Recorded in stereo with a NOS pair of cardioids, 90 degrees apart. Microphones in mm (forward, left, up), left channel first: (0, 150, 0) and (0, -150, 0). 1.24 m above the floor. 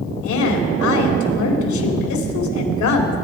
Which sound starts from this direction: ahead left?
A woman speaking, at 0.2 s.